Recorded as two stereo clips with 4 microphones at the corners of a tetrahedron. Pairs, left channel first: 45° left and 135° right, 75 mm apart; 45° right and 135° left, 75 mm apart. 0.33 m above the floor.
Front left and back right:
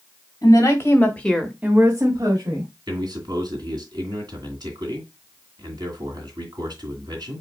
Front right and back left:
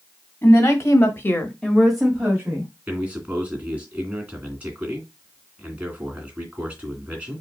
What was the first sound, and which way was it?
A woman speaking, 5° left.